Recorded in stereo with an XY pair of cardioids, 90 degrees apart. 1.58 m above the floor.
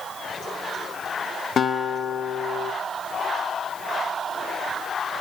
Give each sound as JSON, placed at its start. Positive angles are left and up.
{"t": 1.6, "sound": "a guitar", "azimuth_deg": 55, "distance_m": 1.8}